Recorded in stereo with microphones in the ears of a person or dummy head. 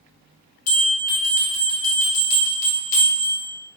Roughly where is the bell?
Left.